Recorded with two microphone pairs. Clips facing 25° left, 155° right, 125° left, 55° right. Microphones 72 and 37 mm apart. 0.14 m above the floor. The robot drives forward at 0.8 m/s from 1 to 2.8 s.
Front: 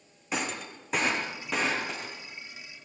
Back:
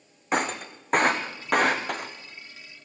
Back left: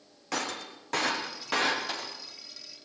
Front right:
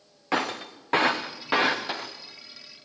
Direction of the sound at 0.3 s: 115° right.